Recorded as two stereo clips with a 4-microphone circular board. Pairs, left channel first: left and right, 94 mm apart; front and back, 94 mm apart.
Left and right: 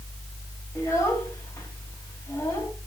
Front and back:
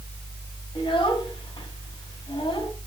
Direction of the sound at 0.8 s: 30° left.